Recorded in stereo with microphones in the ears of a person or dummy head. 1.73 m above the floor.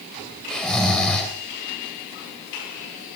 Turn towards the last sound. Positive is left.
turn(degrees=0)  # may be behind; listen again after turning